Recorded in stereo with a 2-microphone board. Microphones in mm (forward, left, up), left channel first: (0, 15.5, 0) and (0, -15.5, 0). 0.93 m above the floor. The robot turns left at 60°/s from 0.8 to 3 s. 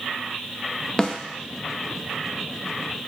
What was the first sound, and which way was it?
A snare drum, 25° left (ahead or behind).